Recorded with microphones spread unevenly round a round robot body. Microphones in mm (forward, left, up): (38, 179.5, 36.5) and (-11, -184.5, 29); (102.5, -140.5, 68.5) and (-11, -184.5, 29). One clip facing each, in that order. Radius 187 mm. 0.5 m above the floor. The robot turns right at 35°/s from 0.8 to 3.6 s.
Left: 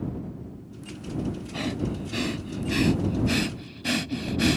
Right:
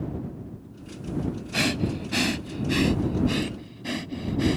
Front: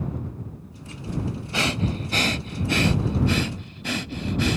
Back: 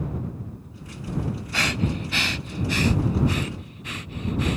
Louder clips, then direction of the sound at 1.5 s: Right 4 dB, front 1 dB; 50° right.